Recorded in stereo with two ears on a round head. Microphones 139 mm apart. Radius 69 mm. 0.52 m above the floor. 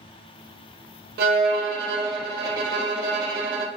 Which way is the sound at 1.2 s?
60° right (ahead or behind).